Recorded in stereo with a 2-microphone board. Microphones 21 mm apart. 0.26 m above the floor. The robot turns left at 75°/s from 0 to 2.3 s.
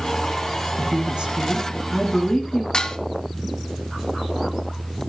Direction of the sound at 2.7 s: 35° left (ahead or behind).